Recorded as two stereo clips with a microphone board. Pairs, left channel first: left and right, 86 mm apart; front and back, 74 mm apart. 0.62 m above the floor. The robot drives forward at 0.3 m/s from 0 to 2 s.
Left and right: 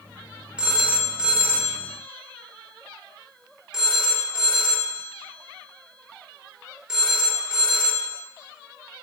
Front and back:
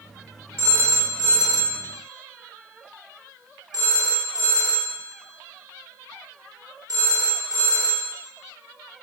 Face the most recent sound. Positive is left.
turn(degrees=-170)